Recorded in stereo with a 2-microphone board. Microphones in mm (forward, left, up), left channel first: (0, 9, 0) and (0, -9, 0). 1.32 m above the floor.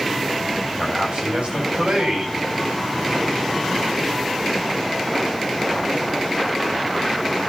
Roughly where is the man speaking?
Right.